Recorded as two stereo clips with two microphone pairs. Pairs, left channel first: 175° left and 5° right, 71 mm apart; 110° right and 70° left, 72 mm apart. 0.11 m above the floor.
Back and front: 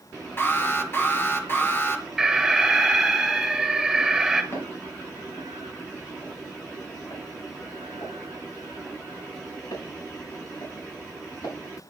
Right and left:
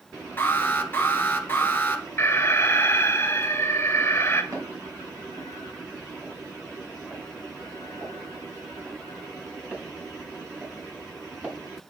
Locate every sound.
0.4 s an alarm: 150° right, 1.5 m
2.2 s an alarm: 85° right, 1.1 m
4.5 s footsteps: 120° left, 5 m; by 11.6 s 150° left, 8 m